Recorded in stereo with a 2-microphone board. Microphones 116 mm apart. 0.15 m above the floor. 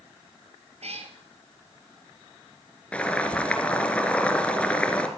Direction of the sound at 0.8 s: 65° right (ahead or behind).